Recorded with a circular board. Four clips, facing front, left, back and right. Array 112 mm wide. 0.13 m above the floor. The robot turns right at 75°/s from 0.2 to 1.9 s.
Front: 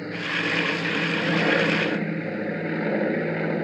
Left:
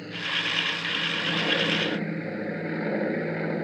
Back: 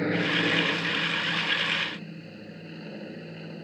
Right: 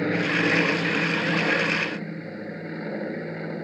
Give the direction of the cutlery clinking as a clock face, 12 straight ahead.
I don't hear cutlery clinking.